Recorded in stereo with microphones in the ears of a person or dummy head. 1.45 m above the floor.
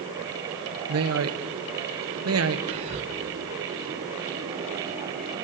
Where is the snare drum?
No snare drum in this recording.